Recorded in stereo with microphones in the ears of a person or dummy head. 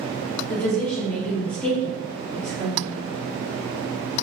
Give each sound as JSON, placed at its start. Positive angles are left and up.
{"t": 0.5, "sound": "a woman speaking", "side_deg": 5, "distance_m": 1.4}